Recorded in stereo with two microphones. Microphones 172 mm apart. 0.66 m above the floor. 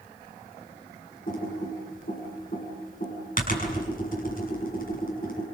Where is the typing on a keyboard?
55° left (ahead or behind), 6.5 m.